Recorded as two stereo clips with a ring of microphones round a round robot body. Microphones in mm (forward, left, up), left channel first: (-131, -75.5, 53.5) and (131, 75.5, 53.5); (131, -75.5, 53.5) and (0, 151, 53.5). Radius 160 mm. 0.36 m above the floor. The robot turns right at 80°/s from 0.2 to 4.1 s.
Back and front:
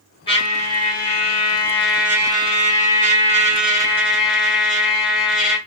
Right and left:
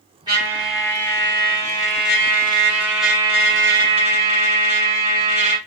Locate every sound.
0.3 s a trumpet: 165° left, 1.5 m; by 5.6 s 115° left, 1.5 m